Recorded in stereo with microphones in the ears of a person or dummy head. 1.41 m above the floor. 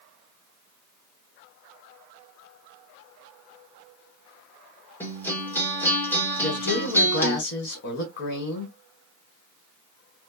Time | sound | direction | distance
5.0 | a guitar | 10° left (ahead or behind) | 1.4 m
6.4 | a woman speaking | 60° left (ahead or behind) | 1.3 m